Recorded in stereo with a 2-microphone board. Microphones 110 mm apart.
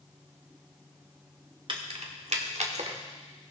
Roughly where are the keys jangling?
Right.